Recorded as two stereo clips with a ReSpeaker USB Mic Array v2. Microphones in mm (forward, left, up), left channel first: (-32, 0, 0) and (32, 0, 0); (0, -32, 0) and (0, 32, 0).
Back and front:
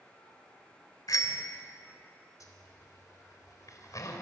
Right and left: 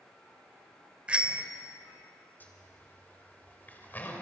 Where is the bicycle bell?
165° left, 2 m.